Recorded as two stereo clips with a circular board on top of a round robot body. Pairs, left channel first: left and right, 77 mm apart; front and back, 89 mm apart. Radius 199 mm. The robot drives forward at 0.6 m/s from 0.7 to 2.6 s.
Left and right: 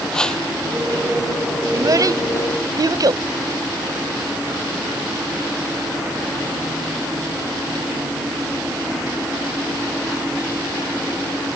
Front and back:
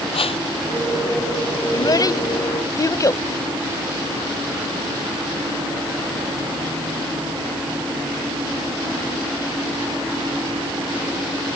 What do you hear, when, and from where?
0.1 s a whoosh: 10° left
1.7 s a child speaking: 45° right; by 3.2 s 55° right